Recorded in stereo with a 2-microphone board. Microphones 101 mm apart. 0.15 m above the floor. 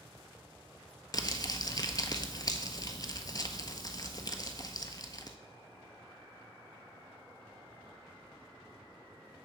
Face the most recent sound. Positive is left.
turn(degrees=40)  # may be behind; listen again after turning